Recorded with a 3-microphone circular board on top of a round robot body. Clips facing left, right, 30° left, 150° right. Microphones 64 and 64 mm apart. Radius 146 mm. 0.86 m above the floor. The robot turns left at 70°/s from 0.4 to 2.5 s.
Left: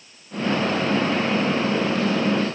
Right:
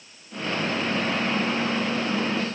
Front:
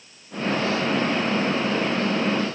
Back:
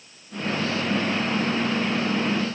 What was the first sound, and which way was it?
Only background noise.